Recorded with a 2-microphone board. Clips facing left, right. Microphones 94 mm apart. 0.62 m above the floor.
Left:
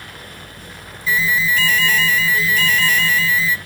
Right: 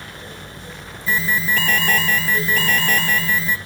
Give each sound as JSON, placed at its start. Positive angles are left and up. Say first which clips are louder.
{"t": 1.1, "sound": "an alarm", "louder": "left 2 dB", "side_deg": -50, "distance_m": 1.2}